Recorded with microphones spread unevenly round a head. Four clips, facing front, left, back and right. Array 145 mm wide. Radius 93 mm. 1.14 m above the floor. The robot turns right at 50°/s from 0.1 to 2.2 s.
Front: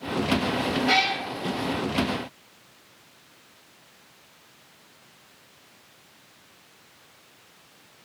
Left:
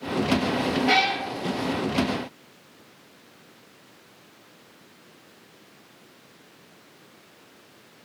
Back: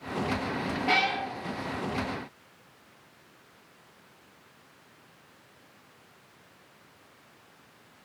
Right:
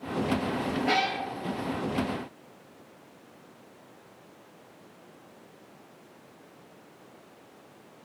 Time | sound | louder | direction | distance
0.9 | a cat meowing | left 3 dB, even | 70° right | 2 m